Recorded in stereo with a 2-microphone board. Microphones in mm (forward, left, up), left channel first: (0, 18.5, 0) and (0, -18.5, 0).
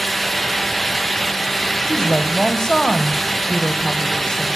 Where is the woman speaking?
20° left (ahead or behind), 0.9 m.